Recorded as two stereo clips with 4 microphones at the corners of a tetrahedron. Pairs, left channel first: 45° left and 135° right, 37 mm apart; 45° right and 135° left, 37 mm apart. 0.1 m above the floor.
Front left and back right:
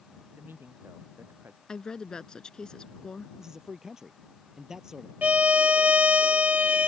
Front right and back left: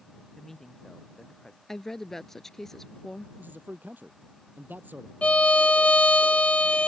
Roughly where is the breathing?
I don't hear breathing.